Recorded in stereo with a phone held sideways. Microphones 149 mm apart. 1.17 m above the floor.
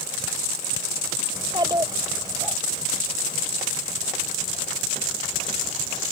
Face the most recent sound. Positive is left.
turn(degrees=-20)  # may be behind; listen again after turning